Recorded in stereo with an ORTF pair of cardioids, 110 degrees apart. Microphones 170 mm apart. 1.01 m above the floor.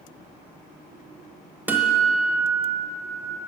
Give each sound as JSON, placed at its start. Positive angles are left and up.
{"t": 1.7, "sound": "a guitar", "azimuth_deg": -10, "distance_m": 0.9}